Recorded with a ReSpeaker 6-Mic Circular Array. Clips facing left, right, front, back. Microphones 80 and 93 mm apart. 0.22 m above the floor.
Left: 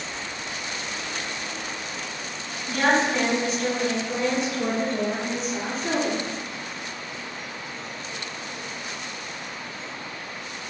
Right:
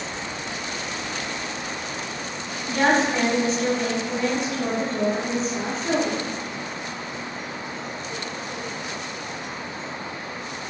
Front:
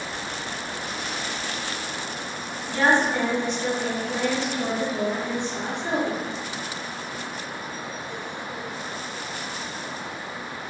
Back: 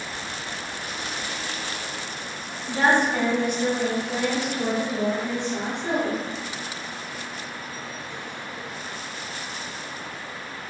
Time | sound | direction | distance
2.7 | a woman speaking | 120° right | 1.1 m